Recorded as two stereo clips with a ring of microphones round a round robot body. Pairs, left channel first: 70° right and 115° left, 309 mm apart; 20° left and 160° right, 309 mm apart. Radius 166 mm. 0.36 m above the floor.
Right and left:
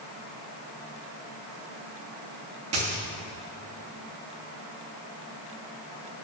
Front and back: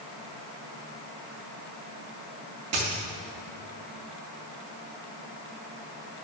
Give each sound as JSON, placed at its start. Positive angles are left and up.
{"t": 2.7, "sound": "a dropped coin", "azimuth_deg": 160, "distance_m": 2.5}